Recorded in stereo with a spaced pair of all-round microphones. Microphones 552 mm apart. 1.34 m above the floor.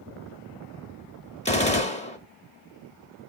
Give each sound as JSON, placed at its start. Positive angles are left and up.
{"t": 1.4, "sound": "a gunshot", "side_deg": 10, "distance_m": 1.1}